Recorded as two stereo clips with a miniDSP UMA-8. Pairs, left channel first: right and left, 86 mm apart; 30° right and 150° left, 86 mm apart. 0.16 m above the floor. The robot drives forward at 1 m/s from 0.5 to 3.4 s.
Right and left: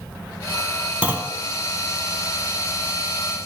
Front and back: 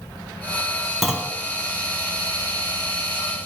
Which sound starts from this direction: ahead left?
A clunk, at 1.0 s.